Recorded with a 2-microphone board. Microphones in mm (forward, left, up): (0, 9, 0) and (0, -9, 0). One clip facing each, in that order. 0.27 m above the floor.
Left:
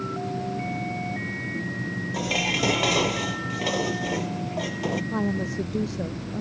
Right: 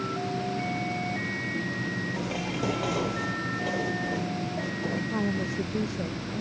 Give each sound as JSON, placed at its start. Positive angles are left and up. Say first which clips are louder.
{"t": 2.1, "sound": "dishes clattering", "louder": "left 6 dB", "side_deg": 80}
{"t": 5.1, "sound": "a woman speaking", "louder": "left 2 dB", "side_deg": 20}